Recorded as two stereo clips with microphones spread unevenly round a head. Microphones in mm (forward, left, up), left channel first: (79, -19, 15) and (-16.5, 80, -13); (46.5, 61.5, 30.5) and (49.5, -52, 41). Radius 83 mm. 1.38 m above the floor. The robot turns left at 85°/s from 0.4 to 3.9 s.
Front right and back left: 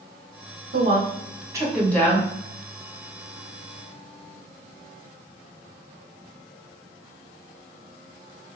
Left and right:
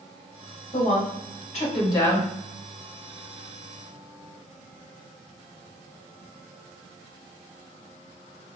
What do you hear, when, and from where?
0.7 s a woman speaking: 135° left, 1.4 m; by 2.3 s straight ahead, 1.4 m